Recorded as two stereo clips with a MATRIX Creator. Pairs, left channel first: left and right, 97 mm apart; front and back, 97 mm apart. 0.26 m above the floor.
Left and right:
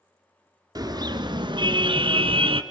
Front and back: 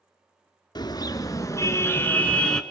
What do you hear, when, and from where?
0.8 s a car horn: 45° right, 2 m; by 2.6 s 85° right, 1.7 m